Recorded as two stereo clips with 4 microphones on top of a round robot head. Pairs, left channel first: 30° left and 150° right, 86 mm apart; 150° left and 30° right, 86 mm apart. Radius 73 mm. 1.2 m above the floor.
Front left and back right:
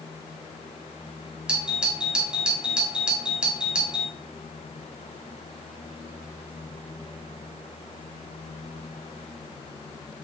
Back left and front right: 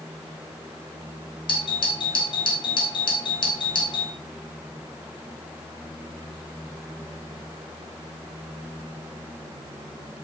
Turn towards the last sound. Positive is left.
turn(degrees=135)